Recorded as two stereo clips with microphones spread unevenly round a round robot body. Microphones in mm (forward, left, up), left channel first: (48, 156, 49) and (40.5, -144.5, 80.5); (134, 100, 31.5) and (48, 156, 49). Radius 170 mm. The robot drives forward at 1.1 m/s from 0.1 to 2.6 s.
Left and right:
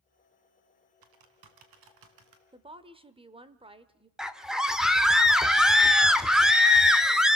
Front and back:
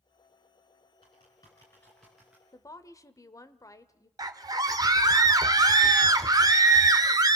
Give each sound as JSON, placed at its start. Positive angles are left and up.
{"t": 1.0, "sound": "typing on a keyboard", "azimuth_deg": -90, "distance_m": 2.0}
{"t": 2.5, "sound": "a woman speaking", "azimuth_deg": -20, "distance_m": 1.4}
{"t": 4.2, "sound": "a scream", "azimuth_deg": 170, "distance_m": 0.9}